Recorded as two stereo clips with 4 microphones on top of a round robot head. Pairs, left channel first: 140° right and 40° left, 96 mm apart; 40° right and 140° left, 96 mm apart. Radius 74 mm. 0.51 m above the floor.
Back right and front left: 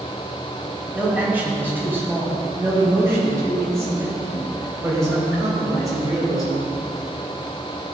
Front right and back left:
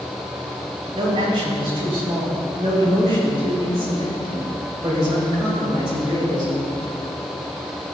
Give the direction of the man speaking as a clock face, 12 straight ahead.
8 o'clock.